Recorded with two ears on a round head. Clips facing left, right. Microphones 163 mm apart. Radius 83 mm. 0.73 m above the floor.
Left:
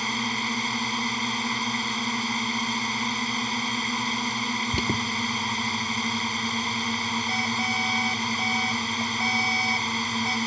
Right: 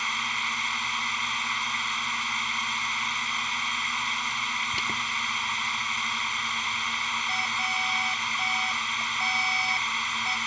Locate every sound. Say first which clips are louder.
0.0 s a drone: left 7 dB; 35° left (ahead or behind)
4.7 s an alarm: left 8 dB; 65° left (ahead or behind)